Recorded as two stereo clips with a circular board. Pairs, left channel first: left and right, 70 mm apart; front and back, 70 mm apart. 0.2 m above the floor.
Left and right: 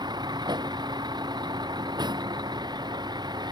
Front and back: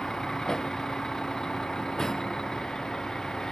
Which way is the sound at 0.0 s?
85° right.